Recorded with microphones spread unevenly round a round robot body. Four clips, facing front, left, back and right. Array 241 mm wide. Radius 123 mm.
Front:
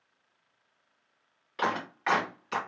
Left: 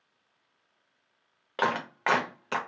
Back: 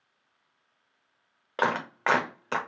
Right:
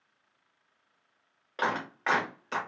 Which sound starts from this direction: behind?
A clap, at 1.6 s.